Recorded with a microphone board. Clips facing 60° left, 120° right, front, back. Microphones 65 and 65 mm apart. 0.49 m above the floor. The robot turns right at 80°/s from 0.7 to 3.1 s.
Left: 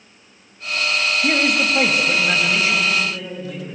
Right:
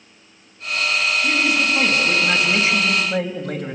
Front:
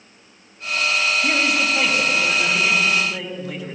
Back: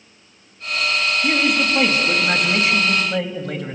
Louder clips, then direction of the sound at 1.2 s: Left 3 dB, back 1 dB; 65° left.